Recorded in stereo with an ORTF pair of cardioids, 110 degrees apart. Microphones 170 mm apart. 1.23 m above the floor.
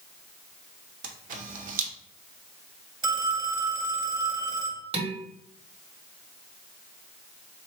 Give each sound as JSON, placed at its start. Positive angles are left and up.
{"t": 1.0, "sound": "a camera shutter", "azimuth_deg": -55, "distance_m": 0.6}
{"t": 3.0, "sound": "a phone ringing", "azimuth_deg": -30, "distance_m": 1.1}
{"t": 4.9, "sound": "dishes clattering", "azimuth_deg": -35, "distance_m": 1.0}